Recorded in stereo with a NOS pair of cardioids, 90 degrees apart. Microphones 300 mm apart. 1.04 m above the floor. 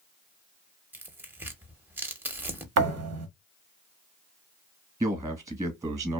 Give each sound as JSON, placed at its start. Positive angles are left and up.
{"t": 0.9, "sound": "tearing paper", "azimuth_deg": -5, "distance_m": 0.7}
{"t": 2.8, "sound": "a thud", "azimuth_deg": -60, "distance_m": 0.9}
{"t": 5.0, "sound": "a man speaking", "azimuth_deg": -10, "distance_m": 1.0}